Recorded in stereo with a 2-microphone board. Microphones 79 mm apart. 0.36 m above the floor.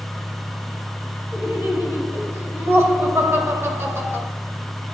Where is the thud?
I don't hear a thud.